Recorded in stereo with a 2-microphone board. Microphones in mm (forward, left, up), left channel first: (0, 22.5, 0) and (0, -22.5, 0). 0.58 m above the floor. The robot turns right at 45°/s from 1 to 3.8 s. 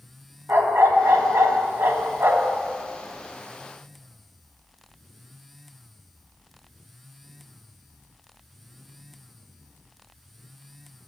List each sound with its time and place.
0.5 s a dog barking: 115° right, 1.8 m; by 2.6 s 45° right, 1.8 m